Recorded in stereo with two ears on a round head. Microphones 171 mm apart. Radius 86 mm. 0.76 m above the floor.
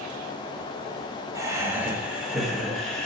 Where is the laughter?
20° right (ahead or behind), 1.1 m; by 3.1 s 5° left (ahead or behind), 1.6 m.